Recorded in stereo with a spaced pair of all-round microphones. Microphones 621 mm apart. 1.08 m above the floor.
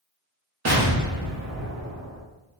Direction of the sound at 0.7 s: 30° right (ahead or behind).